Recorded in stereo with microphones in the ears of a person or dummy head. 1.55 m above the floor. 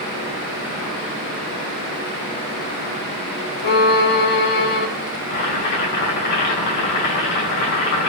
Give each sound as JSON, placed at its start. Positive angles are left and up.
{"t": 3.6, "sound": "a violin", "side_deg": 50, "distance_m": 3.5}
{"t": 5.3, "sound": "boiling", "side_deg": 60, "distance_m": 6.5}